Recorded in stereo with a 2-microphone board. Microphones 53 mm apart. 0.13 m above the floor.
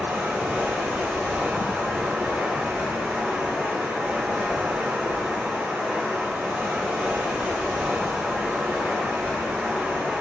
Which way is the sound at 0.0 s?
5° left (ahead or behind).